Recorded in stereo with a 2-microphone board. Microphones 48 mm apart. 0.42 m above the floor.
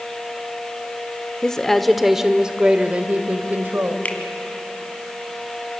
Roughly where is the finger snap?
Left.